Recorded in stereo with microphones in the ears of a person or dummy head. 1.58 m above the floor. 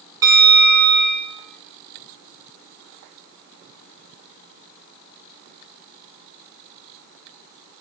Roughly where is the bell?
Centre.